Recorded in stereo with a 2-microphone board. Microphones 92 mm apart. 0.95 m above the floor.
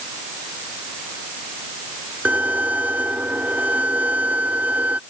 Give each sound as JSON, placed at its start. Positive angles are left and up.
{"t": 2.2, "sound": "a violin", "side_deg": -15}